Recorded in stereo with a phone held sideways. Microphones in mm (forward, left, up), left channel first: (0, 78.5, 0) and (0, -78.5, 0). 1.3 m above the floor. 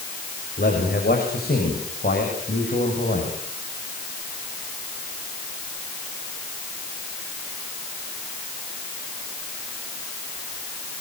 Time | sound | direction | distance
0.6 | a man speaking | 75° left (ahead or behind) | 6.5 m